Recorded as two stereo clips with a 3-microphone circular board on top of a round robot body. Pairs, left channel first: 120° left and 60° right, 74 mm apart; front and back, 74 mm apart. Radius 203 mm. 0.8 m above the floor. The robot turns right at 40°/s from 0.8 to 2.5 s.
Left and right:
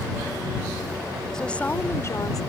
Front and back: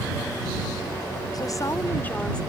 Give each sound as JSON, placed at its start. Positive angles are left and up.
{"t": 1.3, "sound": "a woman speaking", "azimuth_deg": 40}